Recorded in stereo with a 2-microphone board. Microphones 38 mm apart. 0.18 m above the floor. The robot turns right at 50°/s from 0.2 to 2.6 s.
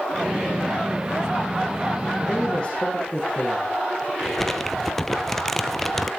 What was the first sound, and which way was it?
A man speaking, 5° left (ahead or behind).